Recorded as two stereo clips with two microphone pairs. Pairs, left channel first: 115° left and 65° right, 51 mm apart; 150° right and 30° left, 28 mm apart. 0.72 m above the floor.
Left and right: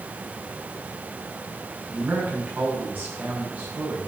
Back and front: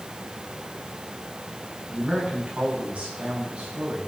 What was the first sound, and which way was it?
A man speaking, 10° right.